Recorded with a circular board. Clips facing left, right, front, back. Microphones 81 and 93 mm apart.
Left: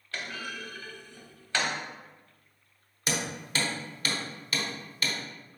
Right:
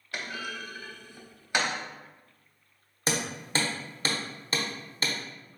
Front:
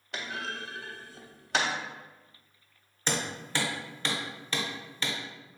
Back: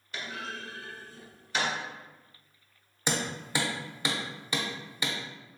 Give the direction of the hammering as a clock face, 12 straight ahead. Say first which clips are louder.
Right 2 dB, back 1 dB; 4 o'clock.